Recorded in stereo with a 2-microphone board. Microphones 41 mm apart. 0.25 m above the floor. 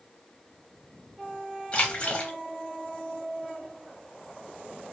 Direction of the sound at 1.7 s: 30° left (ahead or behind).